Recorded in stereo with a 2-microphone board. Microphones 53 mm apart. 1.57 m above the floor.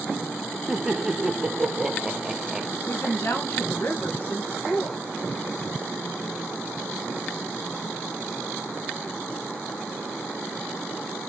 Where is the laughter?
10° right (ahead or behind), 0.7 m.